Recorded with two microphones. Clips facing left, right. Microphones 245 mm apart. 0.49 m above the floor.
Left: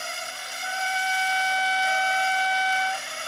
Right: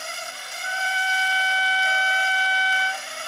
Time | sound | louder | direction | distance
0.6 | a trumpet | left 1 dB | 50° left (ahead or behind) | 0.7 m